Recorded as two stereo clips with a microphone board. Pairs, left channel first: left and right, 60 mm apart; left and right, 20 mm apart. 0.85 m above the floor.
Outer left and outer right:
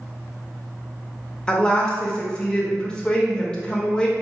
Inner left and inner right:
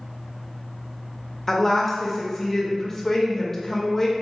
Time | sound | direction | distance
1.5 | a woman speaking | 15° left (ahead or behind) | 0.9 m